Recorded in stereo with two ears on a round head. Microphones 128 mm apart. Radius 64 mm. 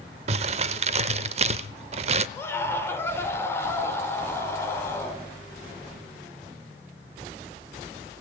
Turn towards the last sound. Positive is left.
turn(degrees=15)  # may be behind; listen again after turning